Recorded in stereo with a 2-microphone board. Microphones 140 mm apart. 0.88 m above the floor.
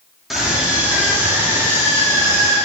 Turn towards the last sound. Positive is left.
turn(degrees=-20)  # may be behind; listen again after turning